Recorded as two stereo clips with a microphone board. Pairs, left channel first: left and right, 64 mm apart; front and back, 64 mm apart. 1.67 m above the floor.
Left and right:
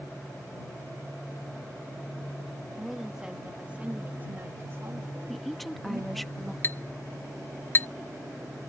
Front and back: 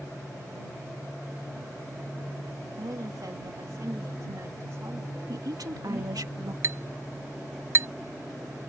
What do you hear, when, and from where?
2.8 s a woman speaking: 175° right; by 6.3 s 115° right
5.3 s a woman speaking: straight behind
6.6 s a clink: 140° left